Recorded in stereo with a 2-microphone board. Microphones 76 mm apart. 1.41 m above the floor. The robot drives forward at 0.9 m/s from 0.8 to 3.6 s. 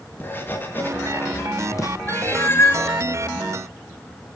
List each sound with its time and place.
0.2 s writing: 25° left (ahead or behind), 2.0 m; by 1.9 s 50° left (ahead or behind), 1.2 m
2.1 s a cat meowing: 25° left (ahead or behind), 1.4 m; by 2.9 s 35° left (ahead or behind), 1.1 m